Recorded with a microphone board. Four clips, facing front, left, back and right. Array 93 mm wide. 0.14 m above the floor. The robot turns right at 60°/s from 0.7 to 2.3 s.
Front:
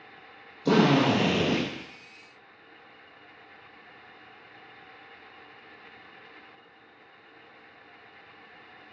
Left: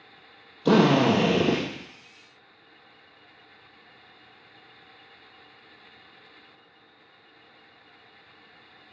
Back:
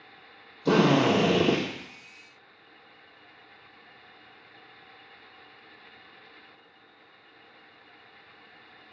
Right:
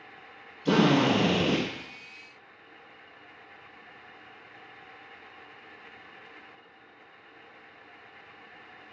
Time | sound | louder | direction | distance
0.7 | a drill | left 3 dB, even | 90° left | 2.5 m